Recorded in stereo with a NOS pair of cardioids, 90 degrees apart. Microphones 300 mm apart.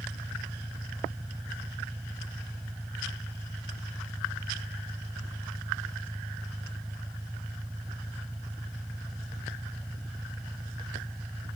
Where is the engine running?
Straight ahead.